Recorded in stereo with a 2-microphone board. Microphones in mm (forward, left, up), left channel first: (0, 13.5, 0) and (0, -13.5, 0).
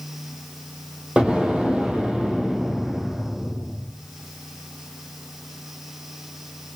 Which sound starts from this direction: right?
An explosion, at 1.2 s.